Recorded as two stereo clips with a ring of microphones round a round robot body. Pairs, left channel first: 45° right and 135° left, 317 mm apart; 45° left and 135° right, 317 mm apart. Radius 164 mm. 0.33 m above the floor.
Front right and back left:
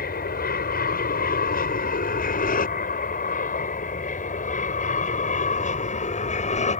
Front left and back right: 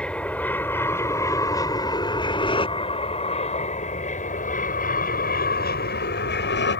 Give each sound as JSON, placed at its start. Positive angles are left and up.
{"t": 0.0, "sound": "an aircraft", "azimuth_deg": -35}